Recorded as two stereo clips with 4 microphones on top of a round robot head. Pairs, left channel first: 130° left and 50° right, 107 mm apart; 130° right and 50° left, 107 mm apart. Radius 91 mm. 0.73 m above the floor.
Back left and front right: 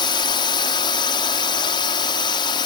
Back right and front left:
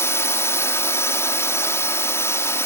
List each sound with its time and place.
0.0 s a drone: 165° left